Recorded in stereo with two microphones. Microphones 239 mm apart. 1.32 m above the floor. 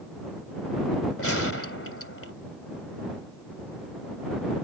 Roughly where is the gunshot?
Left.